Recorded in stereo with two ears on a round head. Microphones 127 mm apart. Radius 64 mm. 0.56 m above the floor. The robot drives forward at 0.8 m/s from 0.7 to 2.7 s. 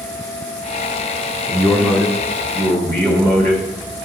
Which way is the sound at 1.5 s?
15° left (ahead or behind).